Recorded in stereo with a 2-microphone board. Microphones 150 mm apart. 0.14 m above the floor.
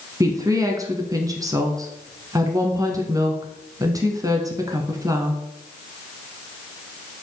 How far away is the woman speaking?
About 1.1 m.